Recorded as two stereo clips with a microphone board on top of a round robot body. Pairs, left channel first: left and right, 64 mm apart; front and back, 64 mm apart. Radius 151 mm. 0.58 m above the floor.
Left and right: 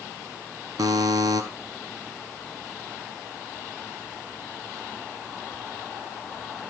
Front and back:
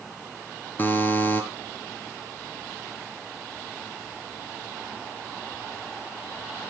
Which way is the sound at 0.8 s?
60° right.